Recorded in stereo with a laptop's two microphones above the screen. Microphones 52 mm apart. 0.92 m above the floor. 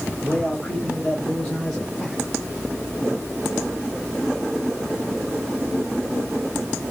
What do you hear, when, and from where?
0.2 s a man speaking: 15° left (ahead or behind), 4 m; by 2.2 s 5° left (ahead or behind), 3.5 m